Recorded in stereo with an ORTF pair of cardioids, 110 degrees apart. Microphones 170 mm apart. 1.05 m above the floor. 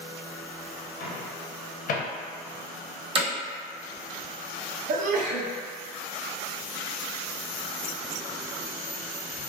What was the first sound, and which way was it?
A microwave, 60° left.